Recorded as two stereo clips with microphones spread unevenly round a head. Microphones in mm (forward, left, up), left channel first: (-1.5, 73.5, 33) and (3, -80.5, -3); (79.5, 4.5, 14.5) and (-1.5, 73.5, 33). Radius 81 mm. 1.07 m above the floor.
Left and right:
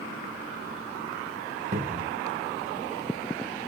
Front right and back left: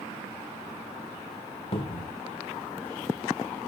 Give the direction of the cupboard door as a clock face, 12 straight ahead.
2 o'clock.